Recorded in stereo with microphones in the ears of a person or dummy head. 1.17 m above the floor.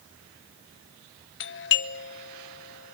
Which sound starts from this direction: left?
A doorbell, at 1.4 s.